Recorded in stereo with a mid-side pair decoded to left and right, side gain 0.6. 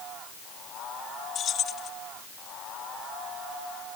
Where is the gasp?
I don't hear a gasp.